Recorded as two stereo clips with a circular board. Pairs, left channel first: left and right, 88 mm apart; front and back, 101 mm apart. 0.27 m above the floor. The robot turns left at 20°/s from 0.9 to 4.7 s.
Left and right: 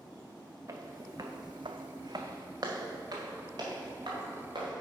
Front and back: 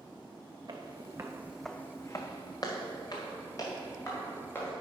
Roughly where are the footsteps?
Behind right.